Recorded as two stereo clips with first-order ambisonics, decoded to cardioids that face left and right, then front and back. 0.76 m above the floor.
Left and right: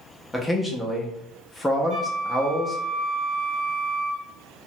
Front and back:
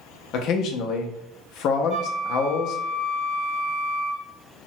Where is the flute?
105° left, 1.6 m.